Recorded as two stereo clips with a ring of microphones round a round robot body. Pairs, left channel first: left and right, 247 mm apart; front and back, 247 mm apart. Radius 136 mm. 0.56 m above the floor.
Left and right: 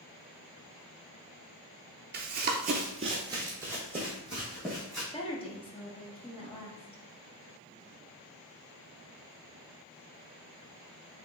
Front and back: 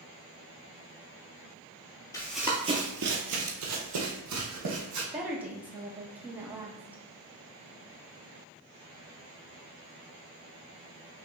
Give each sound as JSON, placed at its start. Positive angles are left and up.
{"t": 2.1, "sound": "running footsteps", "azimuth_deg": -70, "distance_m": 0.6}
{"t": 5.1, "sound": "a woman speaking", "azimuth_deg": 110, "distance_m": 0.8}